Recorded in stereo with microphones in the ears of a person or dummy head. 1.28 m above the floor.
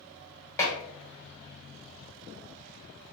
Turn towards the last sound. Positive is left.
turn(degrees=15)  # may be behind; listen again after turning